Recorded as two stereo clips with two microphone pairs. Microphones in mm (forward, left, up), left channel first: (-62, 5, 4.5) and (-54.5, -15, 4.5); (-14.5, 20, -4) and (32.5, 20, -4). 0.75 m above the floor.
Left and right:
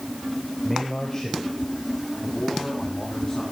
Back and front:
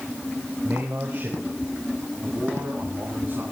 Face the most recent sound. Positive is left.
turn(degrees=50)